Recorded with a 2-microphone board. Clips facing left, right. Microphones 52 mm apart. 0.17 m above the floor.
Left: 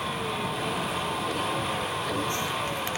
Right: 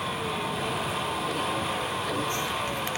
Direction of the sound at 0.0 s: Centre (ahead or behind).